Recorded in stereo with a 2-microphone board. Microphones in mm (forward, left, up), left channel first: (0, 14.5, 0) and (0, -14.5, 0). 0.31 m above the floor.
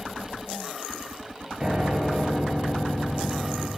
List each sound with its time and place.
1.6 s a piano: 15° right (ahead or behind), 4 m